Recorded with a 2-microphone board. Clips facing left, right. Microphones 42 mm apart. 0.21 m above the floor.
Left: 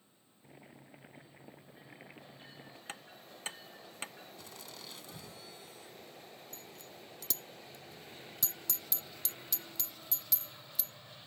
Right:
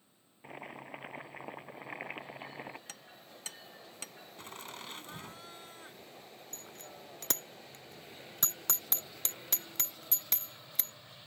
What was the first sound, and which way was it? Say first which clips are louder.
Boiling: right 10 dB; 70° right (ahead or behind).